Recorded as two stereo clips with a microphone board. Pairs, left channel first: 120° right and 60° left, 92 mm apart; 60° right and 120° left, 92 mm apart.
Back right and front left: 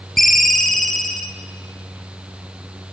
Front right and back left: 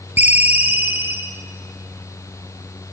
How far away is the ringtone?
About 0.5 m.